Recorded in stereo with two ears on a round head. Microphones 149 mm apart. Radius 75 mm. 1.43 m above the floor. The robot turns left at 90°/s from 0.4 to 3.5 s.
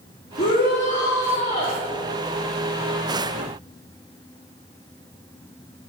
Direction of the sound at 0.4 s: 135° left.